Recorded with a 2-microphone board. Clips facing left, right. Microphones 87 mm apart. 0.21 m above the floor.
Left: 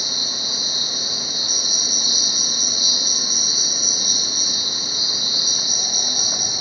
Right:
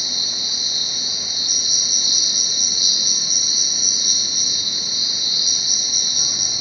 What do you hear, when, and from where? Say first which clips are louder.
0.0 s an insect: left 3 dB; 40° left (ahead or behind), 0.7 m